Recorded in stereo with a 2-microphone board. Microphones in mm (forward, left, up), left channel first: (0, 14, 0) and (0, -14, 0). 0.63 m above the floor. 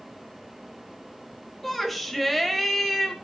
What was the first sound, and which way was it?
A shout, 5° left (ahead or behind).